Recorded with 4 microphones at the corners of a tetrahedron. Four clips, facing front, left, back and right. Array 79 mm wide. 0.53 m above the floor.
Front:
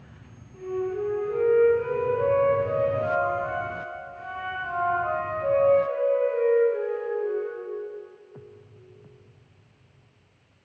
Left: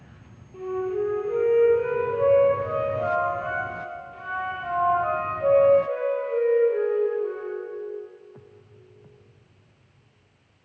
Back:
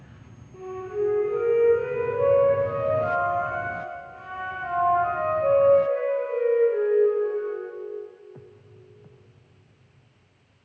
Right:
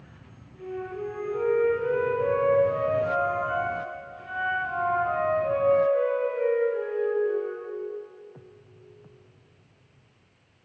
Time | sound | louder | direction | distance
0.5 | a flute | left 7 dB, front 1 dB | 115° left | 8 m